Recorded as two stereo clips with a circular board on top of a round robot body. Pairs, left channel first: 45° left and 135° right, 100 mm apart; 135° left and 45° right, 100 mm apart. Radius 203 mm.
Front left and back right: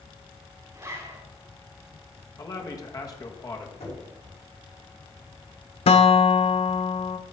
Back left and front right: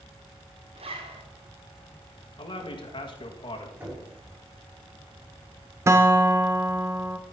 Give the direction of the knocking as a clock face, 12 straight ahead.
11 o'clock.